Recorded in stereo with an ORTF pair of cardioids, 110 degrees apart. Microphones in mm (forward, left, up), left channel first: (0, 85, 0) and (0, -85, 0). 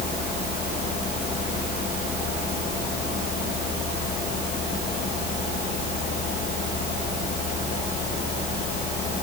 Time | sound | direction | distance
0.0 | a fan | 65° left | ?